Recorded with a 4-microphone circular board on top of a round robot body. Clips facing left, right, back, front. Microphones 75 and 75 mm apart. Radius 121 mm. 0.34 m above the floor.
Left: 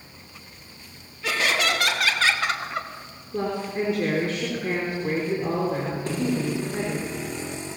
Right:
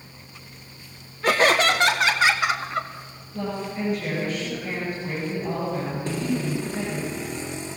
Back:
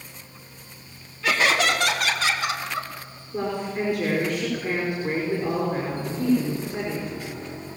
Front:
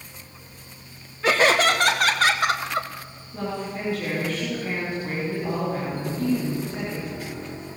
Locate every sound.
1.2 s laughter: 50° right, 1.8 m; by 2.9 s 5° left, 1.6 m
3.3 s a woman speaking: 105° left, 6 m